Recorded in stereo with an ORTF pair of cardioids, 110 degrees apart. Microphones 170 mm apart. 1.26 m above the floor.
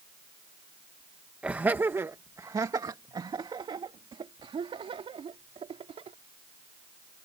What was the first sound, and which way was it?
Laughter, 10° right.